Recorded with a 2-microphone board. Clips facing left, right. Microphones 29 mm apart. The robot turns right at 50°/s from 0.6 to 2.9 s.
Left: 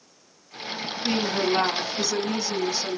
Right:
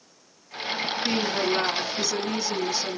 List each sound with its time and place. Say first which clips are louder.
1.0 s a woman speaking: left 2 dB; 30° left (ahead or behind), 1.3 m; by 3.0 s 5° right (ahead or behind), 1.3 m